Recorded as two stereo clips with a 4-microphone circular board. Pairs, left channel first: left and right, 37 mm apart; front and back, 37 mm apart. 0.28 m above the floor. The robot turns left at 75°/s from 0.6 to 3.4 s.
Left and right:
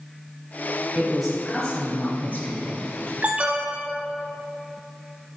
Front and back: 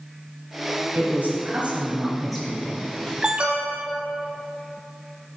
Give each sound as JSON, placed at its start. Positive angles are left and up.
{"t": 0.9, "sound": "a woman speaking", "azimuth_deg": -155, "distance_m": 1.7}
{"t": 3.2, "sound": "an alarm", "azimuth_deg": -115, "distance_m": 1.1}